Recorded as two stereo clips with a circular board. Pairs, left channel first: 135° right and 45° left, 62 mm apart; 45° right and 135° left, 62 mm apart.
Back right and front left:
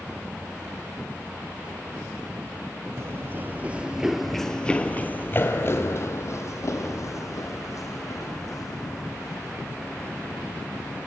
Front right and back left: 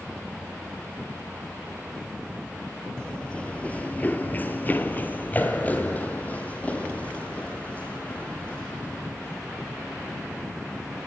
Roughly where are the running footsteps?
Ahead left.